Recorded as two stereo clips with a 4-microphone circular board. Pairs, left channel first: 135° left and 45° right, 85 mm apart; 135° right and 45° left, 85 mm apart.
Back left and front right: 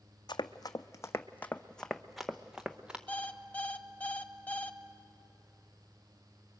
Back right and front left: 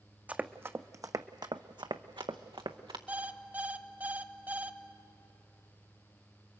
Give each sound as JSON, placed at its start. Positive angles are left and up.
{"t": 0.3, "sound": "running footsteps", "azimuth_deg": 115, "distance_m": 0.9}
{"t": 3.1, "sound": "an alarm clock", "azimuth_deg": 85, "distance_m": 0.7}